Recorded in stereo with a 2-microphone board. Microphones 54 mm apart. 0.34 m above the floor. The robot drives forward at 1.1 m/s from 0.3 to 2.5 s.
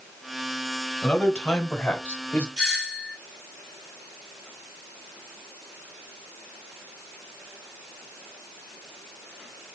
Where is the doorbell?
15° right (ahead or behind), 3.5 m.